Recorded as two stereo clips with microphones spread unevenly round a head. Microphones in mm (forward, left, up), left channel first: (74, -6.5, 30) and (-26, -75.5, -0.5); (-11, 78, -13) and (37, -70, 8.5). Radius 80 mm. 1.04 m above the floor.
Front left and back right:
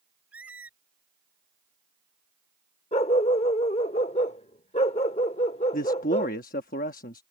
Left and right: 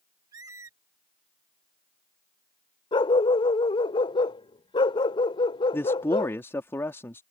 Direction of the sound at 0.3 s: 50° right.